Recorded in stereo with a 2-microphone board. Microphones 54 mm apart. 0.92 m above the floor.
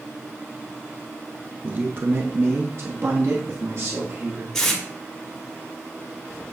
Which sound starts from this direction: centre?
Tape being pulled, at 4.5 s.